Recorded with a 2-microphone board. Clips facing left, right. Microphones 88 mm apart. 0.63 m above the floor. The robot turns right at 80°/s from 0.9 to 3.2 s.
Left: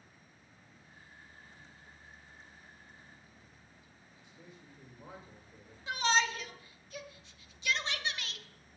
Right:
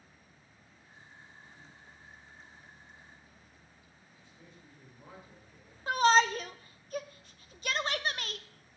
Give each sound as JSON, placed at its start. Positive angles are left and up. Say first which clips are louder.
{"t": 4.2, "sound": "a man speaking", "louder": "left 2 dB", "side_deg": 20, "distance_m": 2.5}
{"t": 5.9, "sound": "a shout", "louder": "right 7 dB", "side_deg": -45, "distance_m": 0.7}